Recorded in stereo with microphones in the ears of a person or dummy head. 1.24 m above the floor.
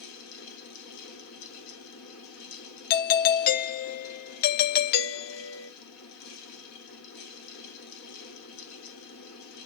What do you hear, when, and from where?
0.0 s a fan: 85° left, 2.5 m
2.9 s a doorbell: 45° left (ahead or behind), 0.8 m